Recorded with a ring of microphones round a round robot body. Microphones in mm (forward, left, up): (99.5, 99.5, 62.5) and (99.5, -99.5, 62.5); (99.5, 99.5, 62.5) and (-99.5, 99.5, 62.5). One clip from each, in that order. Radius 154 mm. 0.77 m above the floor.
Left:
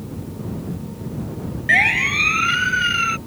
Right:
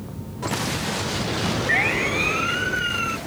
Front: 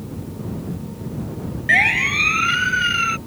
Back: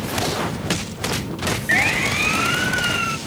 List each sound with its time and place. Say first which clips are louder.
1.7 s a siren: left 7 dB, front 4 dB; 50° left